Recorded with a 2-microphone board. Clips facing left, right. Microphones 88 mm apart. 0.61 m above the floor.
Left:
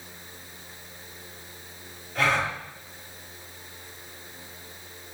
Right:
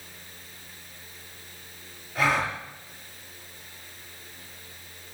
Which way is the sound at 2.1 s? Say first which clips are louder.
Even; 5° right (ahead or behind).